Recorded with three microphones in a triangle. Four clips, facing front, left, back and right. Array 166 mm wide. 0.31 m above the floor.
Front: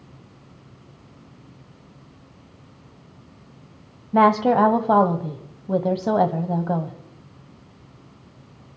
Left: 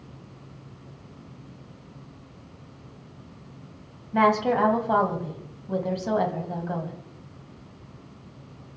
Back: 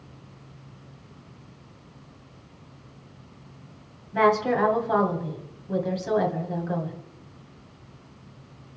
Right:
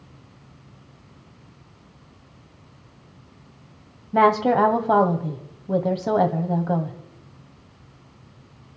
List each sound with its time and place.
4.1 s a woman speaking: 30° right, 1.7 m